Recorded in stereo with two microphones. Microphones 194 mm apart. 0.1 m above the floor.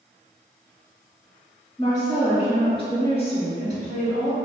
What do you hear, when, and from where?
1.8 s a woman speaking: 15° left (ahead or behind), 1.8 m; by 4.4 s 40° left (ahead or behind), 2 m